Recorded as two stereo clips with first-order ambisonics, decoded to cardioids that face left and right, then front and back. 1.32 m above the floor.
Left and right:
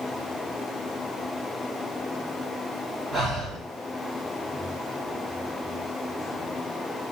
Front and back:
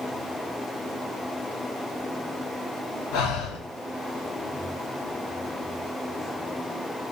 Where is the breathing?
10° right, 0.7 m.